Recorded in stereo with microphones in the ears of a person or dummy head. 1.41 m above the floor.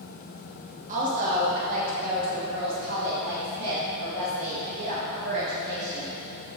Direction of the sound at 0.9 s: 45° right (ahead or behind).